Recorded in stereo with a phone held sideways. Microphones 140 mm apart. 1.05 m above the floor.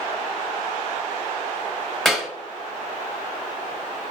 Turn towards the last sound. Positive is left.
turn(degrees=0)  # may be behind; listen again after turning